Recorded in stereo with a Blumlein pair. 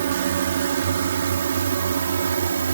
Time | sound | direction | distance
0.0 | a drone | 60° right | ?